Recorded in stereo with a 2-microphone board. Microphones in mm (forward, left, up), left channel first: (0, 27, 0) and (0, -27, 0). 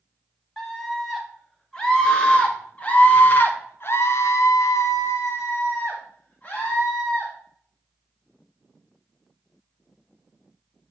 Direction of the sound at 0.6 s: 10° left (ahead or behind).